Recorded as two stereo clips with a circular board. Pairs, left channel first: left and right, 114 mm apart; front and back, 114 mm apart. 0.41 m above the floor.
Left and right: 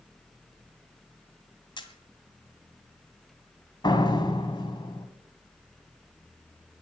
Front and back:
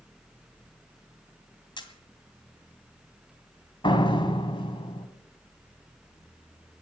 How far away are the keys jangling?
No keys jangling in this recording.